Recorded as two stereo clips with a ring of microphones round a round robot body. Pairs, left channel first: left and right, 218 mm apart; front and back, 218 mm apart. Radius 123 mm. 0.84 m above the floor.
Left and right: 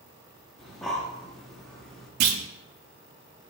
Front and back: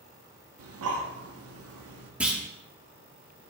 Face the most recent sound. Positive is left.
turn(degrees=-95)